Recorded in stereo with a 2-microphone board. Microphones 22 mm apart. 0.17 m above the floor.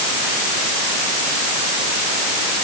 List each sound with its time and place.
Only background noise.